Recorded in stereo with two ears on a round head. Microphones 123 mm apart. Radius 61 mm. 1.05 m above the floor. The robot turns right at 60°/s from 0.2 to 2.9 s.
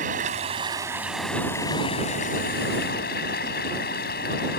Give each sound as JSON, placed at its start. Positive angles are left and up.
{"t": 0.0, "sound": "running water", "azimuth_deg": -60}